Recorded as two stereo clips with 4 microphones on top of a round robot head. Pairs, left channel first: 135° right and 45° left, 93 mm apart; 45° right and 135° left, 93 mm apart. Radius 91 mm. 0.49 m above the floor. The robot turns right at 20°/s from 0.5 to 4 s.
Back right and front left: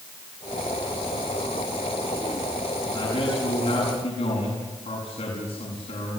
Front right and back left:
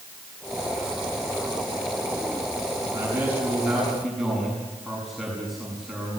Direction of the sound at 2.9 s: 160° right.